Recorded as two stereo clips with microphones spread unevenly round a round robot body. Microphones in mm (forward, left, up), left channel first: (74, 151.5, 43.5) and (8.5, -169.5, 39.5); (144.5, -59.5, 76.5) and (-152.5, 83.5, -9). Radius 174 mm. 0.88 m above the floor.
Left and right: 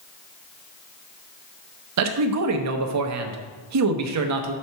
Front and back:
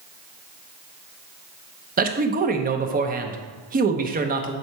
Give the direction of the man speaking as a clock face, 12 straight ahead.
5 o'clock.